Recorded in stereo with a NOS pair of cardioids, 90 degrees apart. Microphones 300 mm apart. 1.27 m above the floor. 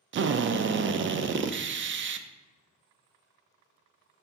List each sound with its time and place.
0.1 s a drill: 40° right, 0.5 m